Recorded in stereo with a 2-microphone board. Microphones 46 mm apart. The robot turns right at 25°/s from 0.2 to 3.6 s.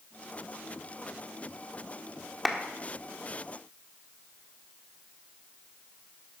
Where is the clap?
Centre (ahead or behind), 1.3 m; by 2.6 s 5° right (ahead or behind), 1.3 m.